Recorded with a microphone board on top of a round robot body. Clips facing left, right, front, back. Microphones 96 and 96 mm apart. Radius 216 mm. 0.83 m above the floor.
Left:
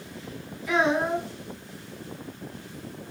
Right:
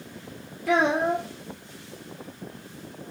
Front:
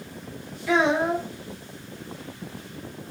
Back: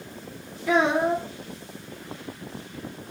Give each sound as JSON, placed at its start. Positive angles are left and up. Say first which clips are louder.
{"t": 0.7, "sound": "a child speaking", "louder": "right 1 dB, even", "azimuth_deg": -125, "distance_m": 1.6}